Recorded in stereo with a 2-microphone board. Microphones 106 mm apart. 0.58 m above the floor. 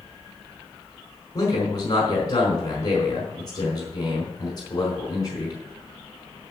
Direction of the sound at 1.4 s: 40° left (ahead or behind).